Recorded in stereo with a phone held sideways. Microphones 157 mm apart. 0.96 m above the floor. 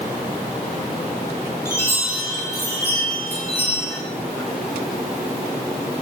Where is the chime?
15° left (ahead or behind), 5 m.